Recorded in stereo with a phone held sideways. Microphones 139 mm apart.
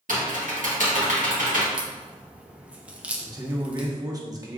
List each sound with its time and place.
0.1 s typing on a keyboard: 70° right (ahead or behind), 1.3 m
1.7 s a crack: 10° right (ahead or behind), 0.5 m
3.2 s a man speaking: 25° right (ahead or behind), 0.9 m